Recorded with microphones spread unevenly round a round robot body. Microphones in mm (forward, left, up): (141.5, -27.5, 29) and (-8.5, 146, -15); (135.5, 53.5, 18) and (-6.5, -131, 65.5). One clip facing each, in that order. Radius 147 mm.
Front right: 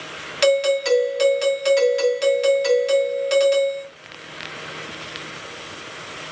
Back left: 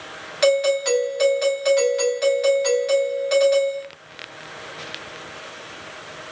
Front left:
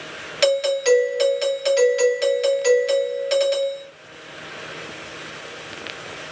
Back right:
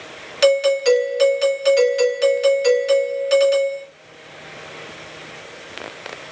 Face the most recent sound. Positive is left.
turn(degrees=-20)